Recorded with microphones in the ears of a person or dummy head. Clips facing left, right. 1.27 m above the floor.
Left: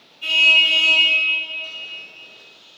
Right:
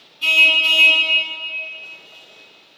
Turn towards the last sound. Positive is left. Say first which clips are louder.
# right 2 dB
turn(degrees=-80)